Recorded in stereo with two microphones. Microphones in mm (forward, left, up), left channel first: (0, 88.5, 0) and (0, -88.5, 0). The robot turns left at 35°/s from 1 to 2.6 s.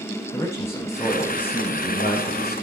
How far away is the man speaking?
About 7 m.